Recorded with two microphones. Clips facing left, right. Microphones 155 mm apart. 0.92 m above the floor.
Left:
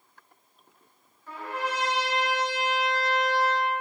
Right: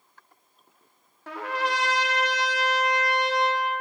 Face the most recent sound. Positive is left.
turn(degrees=-80)